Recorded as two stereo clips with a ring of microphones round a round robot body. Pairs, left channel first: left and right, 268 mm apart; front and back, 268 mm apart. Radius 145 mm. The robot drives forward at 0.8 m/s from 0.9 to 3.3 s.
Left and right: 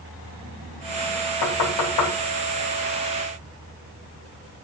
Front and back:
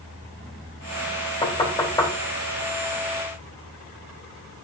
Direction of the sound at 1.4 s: 70° left.